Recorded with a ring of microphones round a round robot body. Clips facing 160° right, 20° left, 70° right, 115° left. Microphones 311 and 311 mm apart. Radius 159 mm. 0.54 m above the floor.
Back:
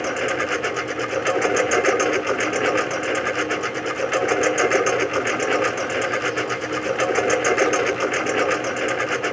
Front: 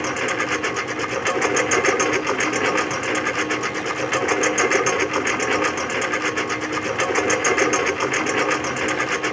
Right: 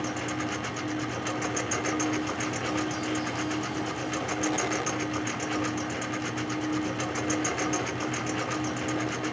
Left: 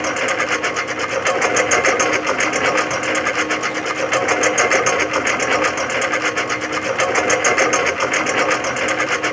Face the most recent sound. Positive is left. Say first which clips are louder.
# back 1 dB, left 9 dB
turn(degrees=100)